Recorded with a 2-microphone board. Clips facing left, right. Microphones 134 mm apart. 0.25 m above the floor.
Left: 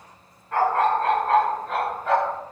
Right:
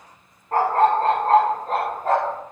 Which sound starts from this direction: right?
A dog barking, at 0.5 s.